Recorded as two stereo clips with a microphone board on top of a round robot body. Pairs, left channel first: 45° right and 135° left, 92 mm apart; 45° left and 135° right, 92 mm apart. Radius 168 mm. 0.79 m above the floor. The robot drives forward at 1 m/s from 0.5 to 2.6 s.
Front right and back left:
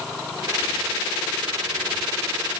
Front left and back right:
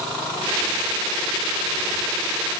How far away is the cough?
I don't hear a cough.